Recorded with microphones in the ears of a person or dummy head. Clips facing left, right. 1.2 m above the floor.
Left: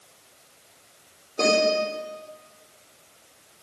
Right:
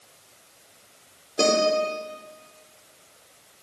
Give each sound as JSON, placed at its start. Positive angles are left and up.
{"t": 1.4, "sound": "a guitar", "side_deg": -20, "distance_m": 3.5}